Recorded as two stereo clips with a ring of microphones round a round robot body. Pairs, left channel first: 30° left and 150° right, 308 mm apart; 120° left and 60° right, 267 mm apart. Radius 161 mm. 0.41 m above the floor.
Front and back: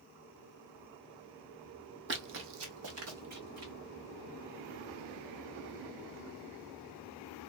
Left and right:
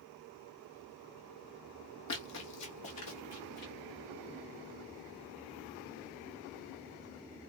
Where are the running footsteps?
160° left, 0.7 m; by 3.7 s 165° left, 1.6 m.